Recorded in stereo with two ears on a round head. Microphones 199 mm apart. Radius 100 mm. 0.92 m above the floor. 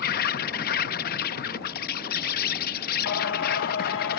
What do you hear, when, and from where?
0.0 s an insect: 40° left (ahead or behind)
3.0 s singing: 60° left (ahead or behind)